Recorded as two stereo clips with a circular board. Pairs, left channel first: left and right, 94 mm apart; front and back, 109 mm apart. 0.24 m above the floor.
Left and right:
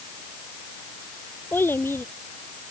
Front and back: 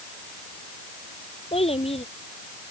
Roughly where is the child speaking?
Ahead left.